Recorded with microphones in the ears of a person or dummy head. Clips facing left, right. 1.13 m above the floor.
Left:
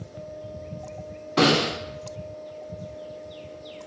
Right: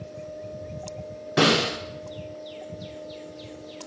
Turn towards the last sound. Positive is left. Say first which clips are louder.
# left 1 dB
turn(degrees=-20)  # may be behind; listen again after turning